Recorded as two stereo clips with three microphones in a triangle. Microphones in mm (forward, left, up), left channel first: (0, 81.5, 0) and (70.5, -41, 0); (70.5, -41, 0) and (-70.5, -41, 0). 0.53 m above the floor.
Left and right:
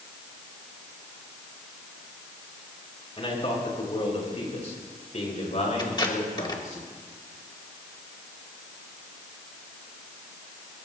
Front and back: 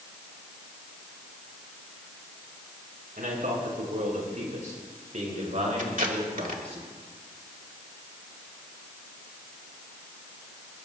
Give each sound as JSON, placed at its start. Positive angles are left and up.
{"t": 3.2, "sound": "a man speaking", "azimuth_deg": 170, "distance_m": 4.5}
{"t": 5.8, "sound": "tape being pulled", "azimuth_deg": 175, "distance_m": 1.8}